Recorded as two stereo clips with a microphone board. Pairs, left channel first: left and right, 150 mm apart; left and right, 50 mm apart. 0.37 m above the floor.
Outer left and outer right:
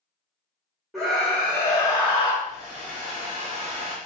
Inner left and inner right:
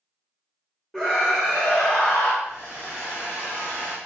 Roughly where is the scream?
Centre.